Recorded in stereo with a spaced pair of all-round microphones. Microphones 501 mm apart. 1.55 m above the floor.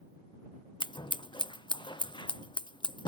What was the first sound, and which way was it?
Scissors, 10° left (ahead or behind).